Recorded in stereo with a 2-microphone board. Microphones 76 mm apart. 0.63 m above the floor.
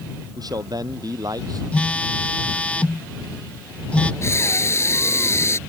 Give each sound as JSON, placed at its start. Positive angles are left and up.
{"t": 0.4, "sound": "a man speaking", "side_deg": -55}
{"t": 1.7, "sound": "a phone buzzing", "side_deg": 15}
{"t": 4.2, "sound": "breathing", "side_deg": 35}